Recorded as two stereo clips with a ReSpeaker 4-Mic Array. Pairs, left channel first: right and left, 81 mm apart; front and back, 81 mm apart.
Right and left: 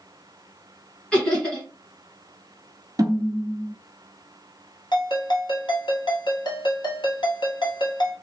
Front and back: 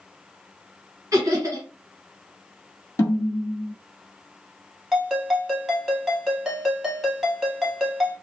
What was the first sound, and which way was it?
Laughter, 160° right.